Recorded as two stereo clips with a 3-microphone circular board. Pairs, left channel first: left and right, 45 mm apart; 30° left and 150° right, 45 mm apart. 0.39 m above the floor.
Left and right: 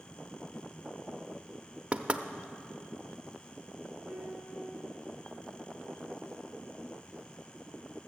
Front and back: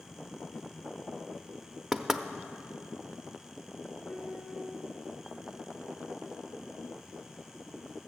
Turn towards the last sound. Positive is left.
turn(degrees=-35)